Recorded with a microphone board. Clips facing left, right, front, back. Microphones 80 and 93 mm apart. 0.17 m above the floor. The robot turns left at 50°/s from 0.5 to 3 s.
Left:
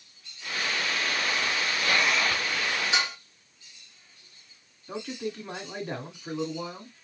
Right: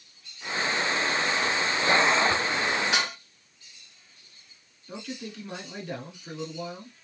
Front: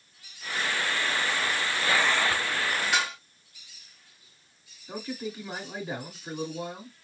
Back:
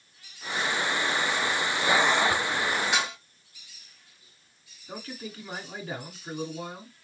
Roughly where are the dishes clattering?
Right.